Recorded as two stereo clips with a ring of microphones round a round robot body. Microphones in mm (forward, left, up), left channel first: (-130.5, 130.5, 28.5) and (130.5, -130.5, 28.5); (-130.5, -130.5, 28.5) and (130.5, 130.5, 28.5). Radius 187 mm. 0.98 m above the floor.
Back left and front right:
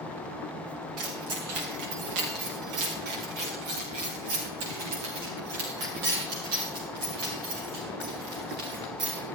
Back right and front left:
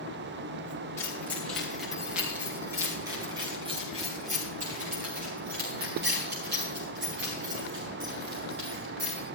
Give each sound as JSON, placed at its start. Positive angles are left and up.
{"t": 1.0, "sound": "keys jangling", "azimuth_deg": -50, "distance_m": 3.5}